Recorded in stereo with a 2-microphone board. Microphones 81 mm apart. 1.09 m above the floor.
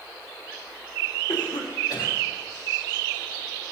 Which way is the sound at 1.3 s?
75° left (ahead or behind).